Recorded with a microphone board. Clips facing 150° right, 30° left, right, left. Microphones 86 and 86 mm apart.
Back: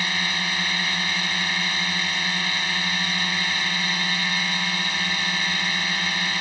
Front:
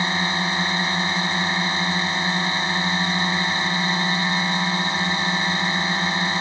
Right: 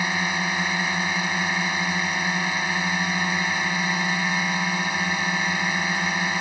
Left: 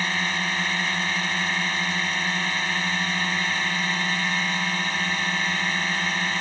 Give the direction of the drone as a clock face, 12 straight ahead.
1 o'clock.